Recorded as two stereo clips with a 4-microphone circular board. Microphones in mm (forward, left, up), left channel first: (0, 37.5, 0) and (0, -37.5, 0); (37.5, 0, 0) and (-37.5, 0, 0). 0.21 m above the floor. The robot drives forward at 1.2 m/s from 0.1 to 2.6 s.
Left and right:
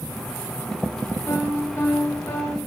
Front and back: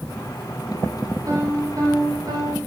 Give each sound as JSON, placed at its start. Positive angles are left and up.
{"t": 1.3, "sound": "a piano", "azimuth_deg": 140, "distance_m": 4.5}